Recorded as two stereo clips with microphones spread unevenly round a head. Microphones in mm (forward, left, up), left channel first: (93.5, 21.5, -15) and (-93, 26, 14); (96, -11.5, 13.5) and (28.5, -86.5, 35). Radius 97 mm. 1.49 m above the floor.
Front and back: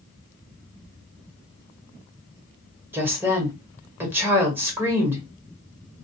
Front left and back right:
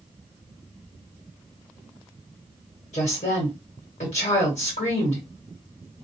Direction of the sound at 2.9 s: 100° left.